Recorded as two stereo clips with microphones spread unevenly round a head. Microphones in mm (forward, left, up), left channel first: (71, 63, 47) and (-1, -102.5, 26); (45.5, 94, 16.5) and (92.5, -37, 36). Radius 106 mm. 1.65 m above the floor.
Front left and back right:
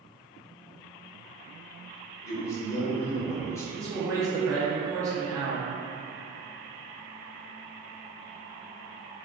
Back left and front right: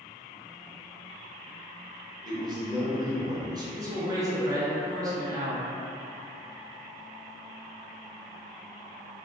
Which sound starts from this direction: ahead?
A man speaking, at 2.2 s.